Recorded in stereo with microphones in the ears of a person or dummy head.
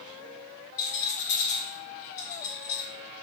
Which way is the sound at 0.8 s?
40° left (ahead or behind).